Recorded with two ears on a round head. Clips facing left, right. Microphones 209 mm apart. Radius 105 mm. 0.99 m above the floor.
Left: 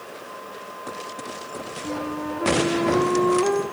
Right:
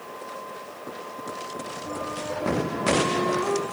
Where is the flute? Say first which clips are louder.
Left 5 dB; 65° left (ahead or behind), 2 m.